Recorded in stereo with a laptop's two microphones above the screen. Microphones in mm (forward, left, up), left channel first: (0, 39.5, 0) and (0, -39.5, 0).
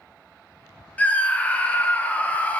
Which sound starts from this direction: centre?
A scream, at 1.0 s.